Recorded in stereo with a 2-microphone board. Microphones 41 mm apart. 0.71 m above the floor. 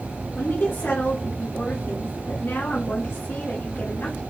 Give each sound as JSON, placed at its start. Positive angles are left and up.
{"t": 0.3, "sound": "a woman speaking", "side_deg": 65, "distance_m": 2.0}